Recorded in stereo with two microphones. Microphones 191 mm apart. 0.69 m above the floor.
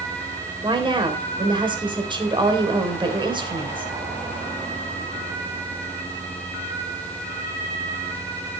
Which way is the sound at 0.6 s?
25° right (ahead or behind).